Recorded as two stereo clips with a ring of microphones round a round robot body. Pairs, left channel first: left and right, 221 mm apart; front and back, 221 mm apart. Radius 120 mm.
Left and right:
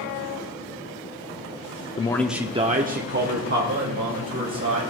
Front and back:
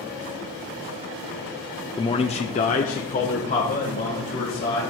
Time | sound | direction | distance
2.0 | a man speaking | 55° left | 0.7 m